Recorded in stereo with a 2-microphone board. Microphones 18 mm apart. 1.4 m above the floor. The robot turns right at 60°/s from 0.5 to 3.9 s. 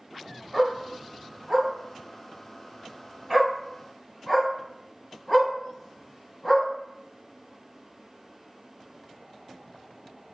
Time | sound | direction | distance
0.5 | a dog barking | 5° left (ahead or behind) | 1.3 m